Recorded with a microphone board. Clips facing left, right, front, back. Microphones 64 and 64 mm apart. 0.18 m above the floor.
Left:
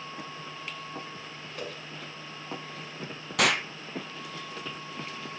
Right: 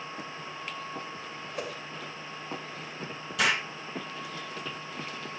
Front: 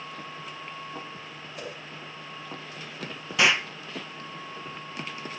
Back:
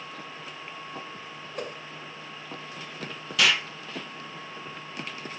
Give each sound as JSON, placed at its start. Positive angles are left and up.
{"t": 1.5, "sound": "a whoosh", "azimuth_deg": -160, "distance_m": 2.0}
{"t": 3.4, "sound": "an explosion", "azimuth_deg": 65, "distance_m": 0.9}